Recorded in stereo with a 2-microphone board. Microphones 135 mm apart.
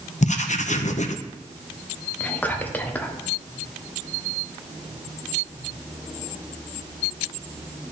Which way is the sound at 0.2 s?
65° left (ahead or behind).